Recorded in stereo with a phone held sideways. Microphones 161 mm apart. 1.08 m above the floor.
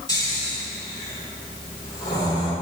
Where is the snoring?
25° left (ahead or behind), 1.7 m.